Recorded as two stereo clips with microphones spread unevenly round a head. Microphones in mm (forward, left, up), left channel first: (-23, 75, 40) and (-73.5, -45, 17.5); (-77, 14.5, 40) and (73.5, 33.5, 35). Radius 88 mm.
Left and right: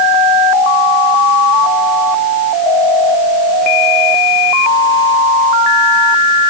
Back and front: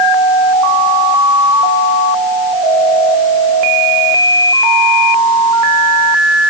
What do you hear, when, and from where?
Only background noise.